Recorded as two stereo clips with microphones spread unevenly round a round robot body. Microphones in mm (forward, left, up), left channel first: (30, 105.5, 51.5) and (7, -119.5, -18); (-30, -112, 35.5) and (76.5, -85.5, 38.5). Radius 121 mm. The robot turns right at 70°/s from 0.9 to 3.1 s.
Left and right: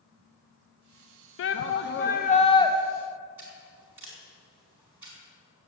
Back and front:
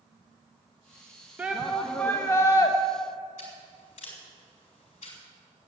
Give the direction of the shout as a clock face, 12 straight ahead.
9 o'clock.